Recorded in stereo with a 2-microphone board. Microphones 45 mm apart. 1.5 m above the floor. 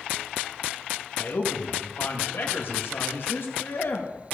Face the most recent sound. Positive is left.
turn(degrees=60)  # may be behind; listen again after turning